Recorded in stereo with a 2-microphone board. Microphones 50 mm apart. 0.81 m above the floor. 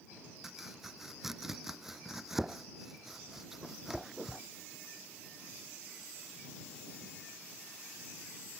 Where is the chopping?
5° right (ahead or behind).